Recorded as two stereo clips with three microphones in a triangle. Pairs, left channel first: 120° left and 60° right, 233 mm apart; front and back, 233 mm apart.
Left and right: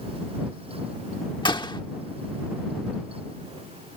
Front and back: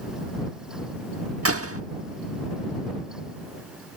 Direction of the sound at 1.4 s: 170° right.